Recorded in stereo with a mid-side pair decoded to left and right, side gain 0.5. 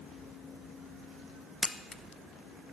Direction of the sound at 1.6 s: 20° left.